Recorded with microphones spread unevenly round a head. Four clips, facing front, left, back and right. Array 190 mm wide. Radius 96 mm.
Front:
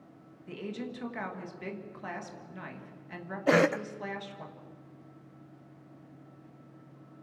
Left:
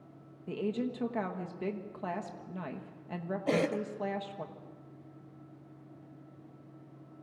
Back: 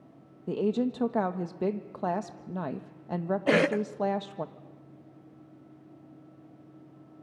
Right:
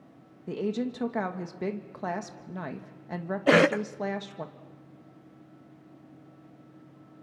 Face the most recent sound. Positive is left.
turn(degrees=-65)